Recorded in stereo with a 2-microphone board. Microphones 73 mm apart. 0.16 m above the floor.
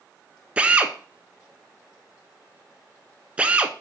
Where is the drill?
15° right (ahead or behind), 0.6 m.